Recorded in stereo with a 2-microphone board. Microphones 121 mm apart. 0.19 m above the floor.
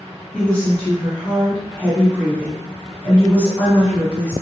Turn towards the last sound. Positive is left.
turn(degrees=10)  # may be behind; listen again after turning